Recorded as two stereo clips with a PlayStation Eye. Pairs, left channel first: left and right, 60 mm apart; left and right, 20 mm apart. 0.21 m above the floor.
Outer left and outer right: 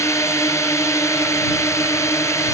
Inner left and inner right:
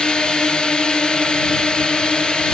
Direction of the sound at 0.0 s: 55° left (ahead or behind).